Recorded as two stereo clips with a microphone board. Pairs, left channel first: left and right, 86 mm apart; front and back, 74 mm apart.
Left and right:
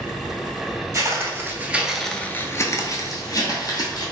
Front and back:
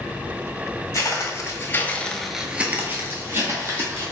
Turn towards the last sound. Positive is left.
turn(degrees=130)